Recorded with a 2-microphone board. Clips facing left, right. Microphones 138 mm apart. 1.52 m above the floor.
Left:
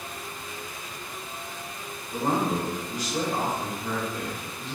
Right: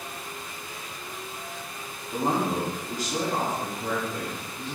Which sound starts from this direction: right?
A man speaking, at 2.1 s.